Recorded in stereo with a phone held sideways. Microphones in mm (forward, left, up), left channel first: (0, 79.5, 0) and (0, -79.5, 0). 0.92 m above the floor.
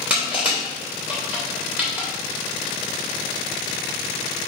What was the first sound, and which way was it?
Crushing, 10° right (ahead or behind).